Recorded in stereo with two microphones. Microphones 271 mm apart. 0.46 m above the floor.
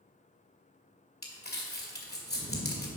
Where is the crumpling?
35° left (ahead or behind), 2 m.